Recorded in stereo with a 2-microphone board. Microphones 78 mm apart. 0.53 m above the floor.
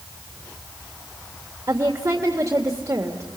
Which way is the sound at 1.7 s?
45° right (ahead or behind).